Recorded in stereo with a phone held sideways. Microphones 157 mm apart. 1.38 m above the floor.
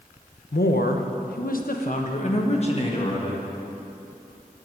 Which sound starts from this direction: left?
A woman speaking, at 0.5 s.